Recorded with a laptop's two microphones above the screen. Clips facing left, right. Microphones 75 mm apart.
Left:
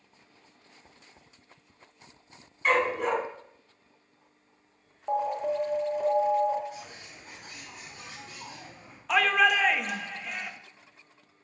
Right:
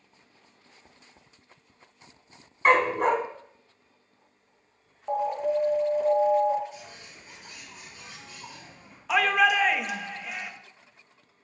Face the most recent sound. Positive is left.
turn(degrees=-5)  # may be behind; listen again after turning